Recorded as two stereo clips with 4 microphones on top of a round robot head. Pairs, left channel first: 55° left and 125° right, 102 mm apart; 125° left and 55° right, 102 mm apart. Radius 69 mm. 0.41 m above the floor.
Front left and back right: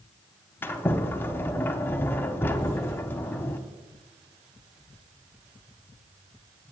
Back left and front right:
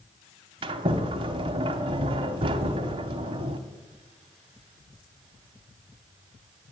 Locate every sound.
0.6 s a sliding door: 15° right, 0.7 m